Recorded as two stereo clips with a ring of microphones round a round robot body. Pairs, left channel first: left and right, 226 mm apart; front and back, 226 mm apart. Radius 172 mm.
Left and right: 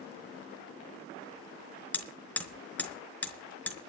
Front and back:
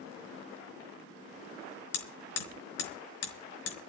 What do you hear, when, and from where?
1.9 s hammering: 5° left, 4.5 m